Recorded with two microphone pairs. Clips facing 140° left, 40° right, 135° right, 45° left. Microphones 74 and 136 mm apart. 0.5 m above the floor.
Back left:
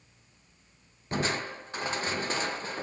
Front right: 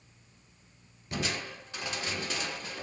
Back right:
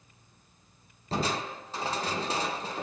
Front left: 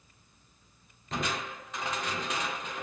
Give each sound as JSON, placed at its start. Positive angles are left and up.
{"t": 1.1, "sound": "crushing", "azimuth_deg": 180, "distance_m": 0.5}